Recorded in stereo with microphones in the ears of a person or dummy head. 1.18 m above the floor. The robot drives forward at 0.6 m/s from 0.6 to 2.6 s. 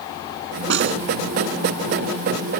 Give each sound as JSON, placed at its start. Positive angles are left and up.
{"t": 0.7, "sound": "a snare drum", "side_deg": -65}